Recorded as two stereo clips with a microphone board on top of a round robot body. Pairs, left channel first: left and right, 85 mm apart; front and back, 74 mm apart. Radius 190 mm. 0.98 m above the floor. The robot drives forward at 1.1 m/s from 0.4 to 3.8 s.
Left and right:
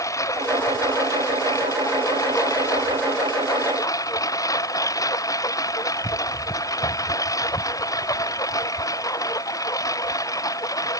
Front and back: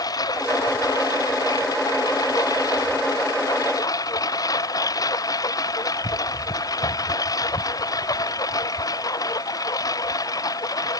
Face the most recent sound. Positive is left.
turn(degrees=40)